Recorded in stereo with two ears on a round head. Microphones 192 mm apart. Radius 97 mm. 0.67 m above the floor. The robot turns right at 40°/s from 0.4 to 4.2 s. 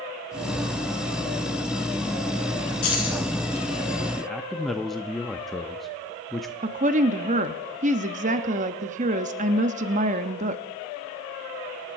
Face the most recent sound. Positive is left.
turn(degrees=-35)  # may be behind; listen again after turning